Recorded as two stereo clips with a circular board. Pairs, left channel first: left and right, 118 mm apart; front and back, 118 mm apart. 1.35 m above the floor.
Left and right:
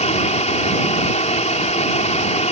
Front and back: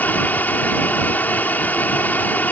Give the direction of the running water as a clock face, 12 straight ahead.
9 o'clock.